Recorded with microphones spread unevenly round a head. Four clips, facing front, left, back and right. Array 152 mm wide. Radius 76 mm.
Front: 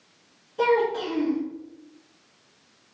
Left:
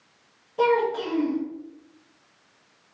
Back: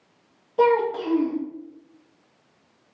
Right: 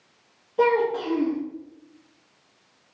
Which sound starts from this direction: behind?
A child speaking, at 0.6 s.